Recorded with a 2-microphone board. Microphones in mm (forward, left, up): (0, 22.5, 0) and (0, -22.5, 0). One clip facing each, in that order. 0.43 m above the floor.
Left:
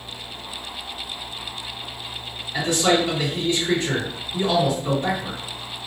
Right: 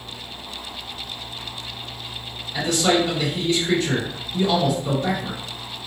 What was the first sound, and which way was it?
A man speaking, 35° left (ahead or behind).